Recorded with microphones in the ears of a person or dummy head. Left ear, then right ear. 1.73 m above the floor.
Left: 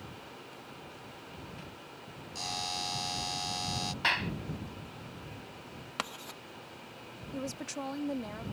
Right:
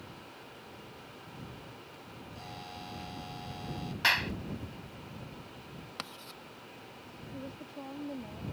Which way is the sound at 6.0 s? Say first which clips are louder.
Left 6 dB; 20° left (ahead or behind).